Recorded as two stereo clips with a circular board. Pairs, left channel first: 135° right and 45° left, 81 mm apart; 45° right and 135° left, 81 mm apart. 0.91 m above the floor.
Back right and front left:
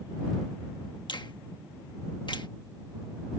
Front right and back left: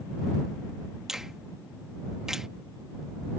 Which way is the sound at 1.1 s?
140° right.